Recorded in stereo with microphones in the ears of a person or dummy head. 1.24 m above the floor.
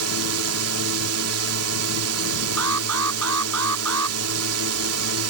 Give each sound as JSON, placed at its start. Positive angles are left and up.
{"t": 0.0, "sound": "a drone", "side_deg": -80}
{"t": 2.6, "sound": "an alarm", "side_deg": -80}